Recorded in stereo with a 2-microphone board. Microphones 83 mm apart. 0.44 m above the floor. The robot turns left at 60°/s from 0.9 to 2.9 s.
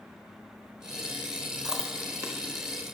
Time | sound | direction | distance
1.6 | chewing | 5° right (ahead or behind) | 0.9 m